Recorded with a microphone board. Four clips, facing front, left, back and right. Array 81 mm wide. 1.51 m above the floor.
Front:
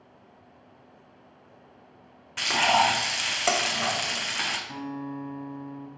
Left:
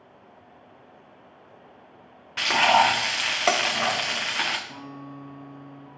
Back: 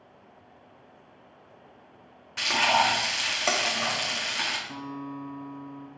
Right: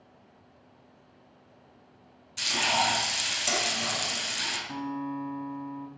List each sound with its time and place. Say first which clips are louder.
2.4 s frying: left 9 dB, front 1 dB; 85° left, 0.5 m
4.7 s a guitar: right 6 dB, front 2 dB; 45° right, 3.5 m